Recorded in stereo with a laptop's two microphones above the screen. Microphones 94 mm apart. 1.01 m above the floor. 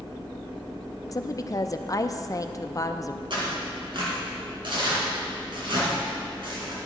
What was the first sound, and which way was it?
A woman speaking, 40° left (ahead or behind).